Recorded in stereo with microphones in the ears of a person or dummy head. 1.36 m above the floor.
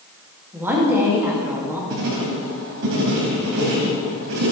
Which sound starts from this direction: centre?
A woman speaking, at 0.5 s.